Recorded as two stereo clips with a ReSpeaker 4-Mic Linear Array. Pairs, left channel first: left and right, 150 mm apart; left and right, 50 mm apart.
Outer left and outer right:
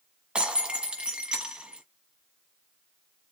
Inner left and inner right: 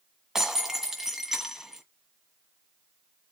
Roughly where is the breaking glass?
Centre.